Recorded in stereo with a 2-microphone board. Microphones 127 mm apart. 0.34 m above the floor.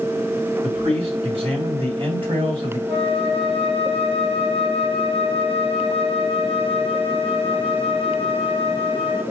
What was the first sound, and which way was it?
A man speaking, 55° right (ahead or behind).